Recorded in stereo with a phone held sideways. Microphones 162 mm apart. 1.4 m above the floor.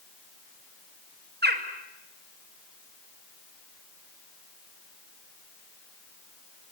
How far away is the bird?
About 2 m.